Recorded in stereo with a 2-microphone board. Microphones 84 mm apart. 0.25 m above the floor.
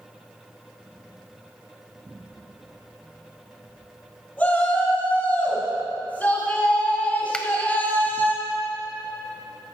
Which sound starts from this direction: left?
A shout, at 4.4 s.